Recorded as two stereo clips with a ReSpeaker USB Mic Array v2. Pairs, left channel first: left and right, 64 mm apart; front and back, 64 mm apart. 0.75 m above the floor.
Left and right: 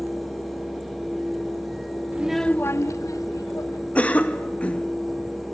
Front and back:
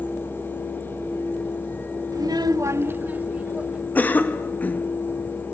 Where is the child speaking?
150° right, 0.6 m; by 3.9 s 105° left, 2 m.